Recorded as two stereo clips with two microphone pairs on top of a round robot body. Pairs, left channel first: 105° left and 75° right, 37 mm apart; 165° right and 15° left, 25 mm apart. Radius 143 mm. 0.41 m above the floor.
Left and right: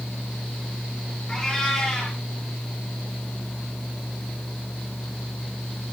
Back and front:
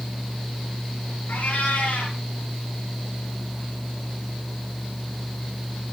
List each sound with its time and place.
1.3 s a cat meowing: 175° right, 7.5 m